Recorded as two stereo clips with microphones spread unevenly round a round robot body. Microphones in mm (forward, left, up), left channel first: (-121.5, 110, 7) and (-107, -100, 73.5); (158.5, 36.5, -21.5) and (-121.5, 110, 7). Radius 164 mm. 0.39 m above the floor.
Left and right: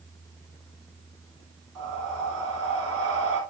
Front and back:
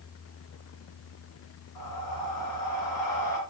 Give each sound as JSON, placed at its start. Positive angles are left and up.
{"t": 1.8, "sound": "breathing", "azimuth_deg": -50, "distance_m": 2.5}